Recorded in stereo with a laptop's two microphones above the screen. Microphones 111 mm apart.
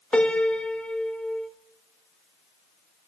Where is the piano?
10° left (ahead or behind), 1.2 m.